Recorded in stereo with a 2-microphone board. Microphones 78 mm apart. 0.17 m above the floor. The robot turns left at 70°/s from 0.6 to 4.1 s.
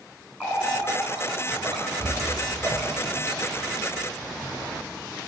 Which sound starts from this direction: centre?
A running tap, at 0.4 s.